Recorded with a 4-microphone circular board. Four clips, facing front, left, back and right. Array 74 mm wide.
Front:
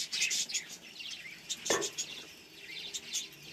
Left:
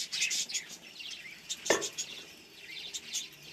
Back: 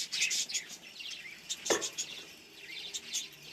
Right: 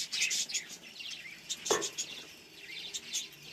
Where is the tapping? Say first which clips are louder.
Left 2 dB, even; 85° left, 2.5 m.